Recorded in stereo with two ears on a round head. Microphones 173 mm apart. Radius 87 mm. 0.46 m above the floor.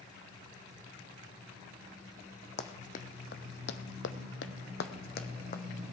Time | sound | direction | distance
2.6 | running footsteps | 35° left (ahead or behind) | 1.3 m